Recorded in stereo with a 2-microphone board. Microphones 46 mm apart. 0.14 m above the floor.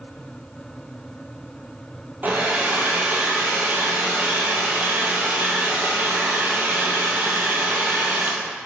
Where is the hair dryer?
40° right (ahead or behind), 0.7 m.